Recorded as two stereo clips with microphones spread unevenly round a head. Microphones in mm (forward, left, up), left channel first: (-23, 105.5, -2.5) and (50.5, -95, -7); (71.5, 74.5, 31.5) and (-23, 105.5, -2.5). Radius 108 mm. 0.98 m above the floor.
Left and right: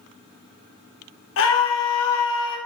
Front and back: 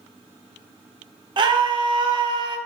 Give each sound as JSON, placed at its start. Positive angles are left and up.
{"t": 1.4, "sound": "a scream", "azimuth_deg": 140, "distance_m": 1.2}